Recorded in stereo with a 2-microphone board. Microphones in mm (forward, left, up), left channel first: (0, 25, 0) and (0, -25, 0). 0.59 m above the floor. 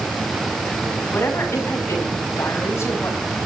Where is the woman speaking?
75° left (ahead or behind), 5.5 m; by 3.4 s 65° left (ahead or behind), 4.5 m.